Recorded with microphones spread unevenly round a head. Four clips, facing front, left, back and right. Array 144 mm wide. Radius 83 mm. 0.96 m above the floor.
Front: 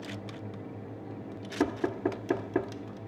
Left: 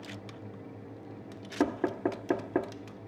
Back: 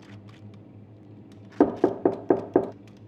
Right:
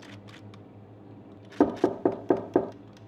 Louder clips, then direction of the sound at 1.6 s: Right 6 dB, back 9 dB; 155° right.